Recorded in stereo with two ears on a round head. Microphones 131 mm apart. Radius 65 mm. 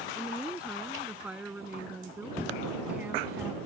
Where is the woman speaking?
5° right (ahead or behind); by 3.6 s 10° right (ahead or behind).